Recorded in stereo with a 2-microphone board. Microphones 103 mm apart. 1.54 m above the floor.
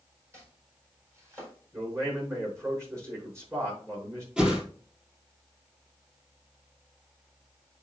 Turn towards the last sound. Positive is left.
turn(degrees=-10)  # may be behind; listen again after turning